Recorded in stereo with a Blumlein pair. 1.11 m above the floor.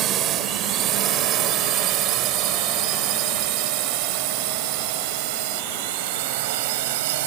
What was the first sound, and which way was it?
A drone, 30° right.